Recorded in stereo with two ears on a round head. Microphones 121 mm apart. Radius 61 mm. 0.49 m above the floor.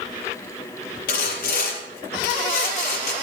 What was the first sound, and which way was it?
Sawing, 75° left (ahead or behind).